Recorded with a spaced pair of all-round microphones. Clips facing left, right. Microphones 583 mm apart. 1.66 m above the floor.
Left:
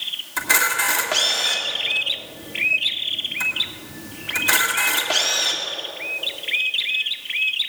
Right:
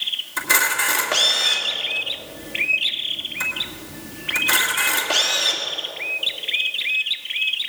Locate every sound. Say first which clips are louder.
0.4 s a camera shutter: even; 15° left (ahead or behind), 1.9 m